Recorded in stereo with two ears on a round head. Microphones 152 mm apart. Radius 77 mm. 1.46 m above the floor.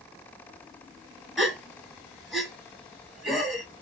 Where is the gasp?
5° right (ahead or behind), 1.1 m.